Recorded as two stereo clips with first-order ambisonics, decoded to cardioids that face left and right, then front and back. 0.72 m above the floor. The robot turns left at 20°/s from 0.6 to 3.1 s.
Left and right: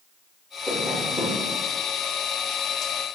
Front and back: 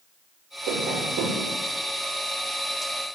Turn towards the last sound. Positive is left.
turn(degrees=125)